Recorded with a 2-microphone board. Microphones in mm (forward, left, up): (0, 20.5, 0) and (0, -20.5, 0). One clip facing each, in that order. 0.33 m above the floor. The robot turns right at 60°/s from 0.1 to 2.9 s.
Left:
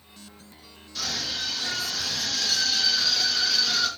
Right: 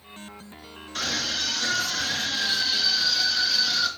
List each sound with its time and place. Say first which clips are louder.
0.9 s a scream: right 3 dB; 120° right, 4.5 m; by 3.9 s straight ahead, 4.5 m